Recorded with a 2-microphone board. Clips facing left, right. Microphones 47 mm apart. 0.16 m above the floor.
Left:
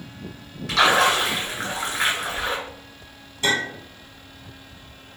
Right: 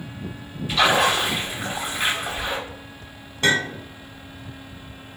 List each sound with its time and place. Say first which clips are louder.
0.7 s a splash: left 1 dB; 65° left (ahead or behind), 1.8 m
3.4 s a clink: right 2 dB; 50° right (ahead or behind), 1.5 m